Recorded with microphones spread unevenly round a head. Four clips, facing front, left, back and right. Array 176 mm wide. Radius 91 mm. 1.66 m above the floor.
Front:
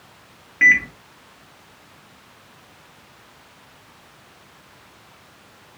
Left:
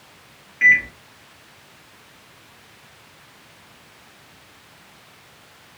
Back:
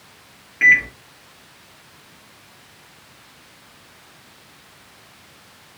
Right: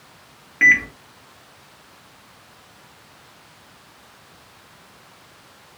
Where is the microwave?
85° right, 1.5 m.